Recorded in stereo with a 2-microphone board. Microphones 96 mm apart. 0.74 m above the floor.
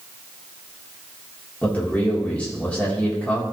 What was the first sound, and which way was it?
A man speaking, 15° left (ahead or behind).